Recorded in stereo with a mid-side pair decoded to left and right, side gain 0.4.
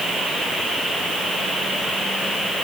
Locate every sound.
Only background noise.